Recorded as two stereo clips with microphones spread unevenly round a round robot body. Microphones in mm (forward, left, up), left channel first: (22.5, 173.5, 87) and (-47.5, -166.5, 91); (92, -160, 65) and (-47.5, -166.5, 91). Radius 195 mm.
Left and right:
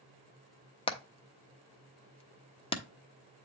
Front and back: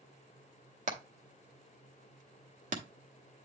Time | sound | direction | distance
0.9 | hammering | 150° left | 1.1 m